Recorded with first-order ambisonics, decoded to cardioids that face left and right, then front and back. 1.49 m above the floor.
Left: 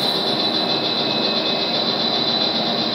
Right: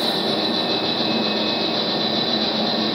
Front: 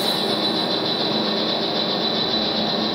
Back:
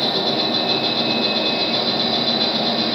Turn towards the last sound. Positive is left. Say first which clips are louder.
# left 2 dB, back 2 dB
turn(degrees=155)